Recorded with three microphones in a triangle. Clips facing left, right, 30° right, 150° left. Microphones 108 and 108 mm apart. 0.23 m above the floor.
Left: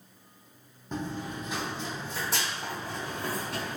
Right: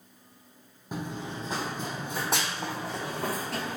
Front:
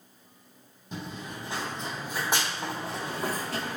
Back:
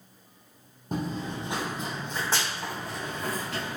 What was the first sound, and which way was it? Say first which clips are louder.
Running footsteps: left 1 dB, back 7 dB; 170° right.